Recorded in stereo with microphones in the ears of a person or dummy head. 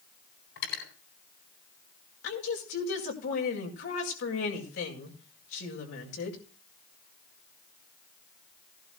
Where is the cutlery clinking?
80° left, 8.5 m.